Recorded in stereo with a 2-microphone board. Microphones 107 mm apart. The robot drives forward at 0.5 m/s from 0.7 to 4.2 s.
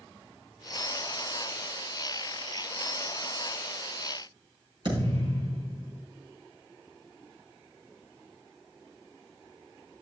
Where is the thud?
50° right (ahead or behind), 4.5 m.